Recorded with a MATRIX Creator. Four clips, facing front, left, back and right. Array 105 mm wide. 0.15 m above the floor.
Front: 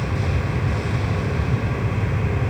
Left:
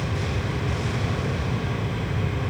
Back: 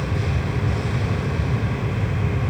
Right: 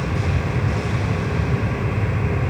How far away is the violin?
No violin in this recording.